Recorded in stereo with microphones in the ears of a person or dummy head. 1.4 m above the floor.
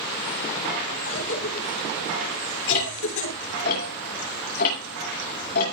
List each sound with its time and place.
1.1 s a cough: 70° left (ahead or behind), 9.5 m
2.7 s ticking: 50° left (ahead or behind), 8 m